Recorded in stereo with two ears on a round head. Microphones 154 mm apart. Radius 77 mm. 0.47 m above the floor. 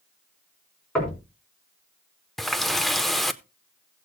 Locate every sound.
0.9 s knocking: 5° left (ahead or behind), 4.5 m
2.4 s a running tap: centre (ahead or behind), 0.6 m